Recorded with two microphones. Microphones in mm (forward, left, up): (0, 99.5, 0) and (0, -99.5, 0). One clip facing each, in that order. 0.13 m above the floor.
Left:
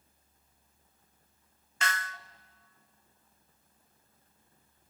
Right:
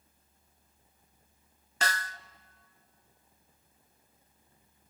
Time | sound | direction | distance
1.8 | a snare drum | 40° right (ahead or behind) | 0.6 m